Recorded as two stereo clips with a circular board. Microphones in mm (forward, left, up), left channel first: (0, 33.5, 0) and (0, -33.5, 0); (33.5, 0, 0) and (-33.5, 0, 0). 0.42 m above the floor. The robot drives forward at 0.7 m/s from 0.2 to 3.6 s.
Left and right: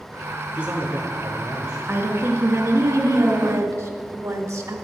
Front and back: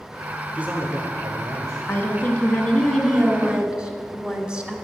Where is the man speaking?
130° right, 0.8 m; by 1.8 s 165° right, 1.4 m.